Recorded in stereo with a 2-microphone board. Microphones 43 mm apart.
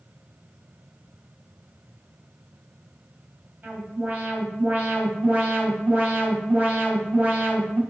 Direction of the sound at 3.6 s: 45° right (ahead or behind).